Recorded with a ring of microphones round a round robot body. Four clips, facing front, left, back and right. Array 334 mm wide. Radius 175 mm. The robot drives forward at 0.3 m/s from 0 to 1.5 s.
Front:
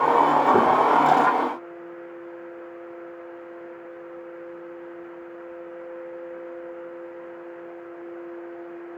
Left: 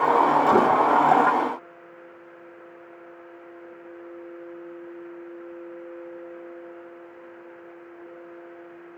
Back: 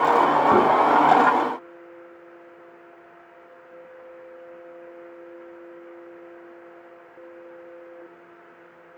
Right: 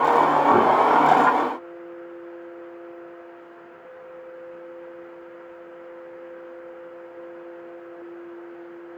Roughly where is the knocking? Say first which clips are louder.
Right 1 dB, back 2 dB; behind.